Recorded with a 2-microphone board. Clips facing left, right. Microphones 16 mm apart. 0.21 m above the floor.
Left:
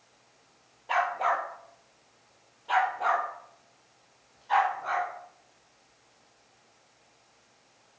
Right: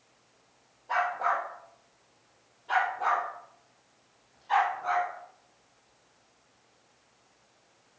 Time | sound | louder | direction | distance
0.9 | a dog barking | left 1 dB | 65° left (ahead or behind) | 1.8 m